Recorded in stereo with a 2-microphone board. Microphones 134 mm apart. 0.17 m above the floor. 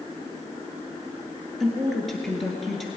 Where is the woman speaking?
Centre (ahead or behind), 2.5 m.